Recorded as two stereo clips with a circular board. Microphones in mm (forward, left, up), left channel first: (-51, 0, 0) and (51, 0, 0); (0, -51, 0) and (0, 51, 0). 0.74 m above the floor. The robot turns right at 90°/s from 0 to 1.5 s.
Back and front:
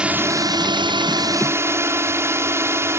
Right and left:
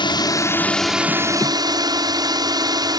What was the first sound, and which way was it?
A drone, 80° right.